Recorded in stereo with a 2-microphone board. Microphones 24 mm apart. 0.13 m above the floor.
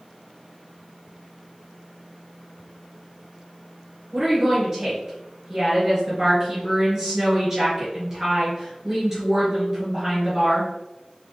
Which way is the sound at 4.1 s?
20° right (ahead or behind).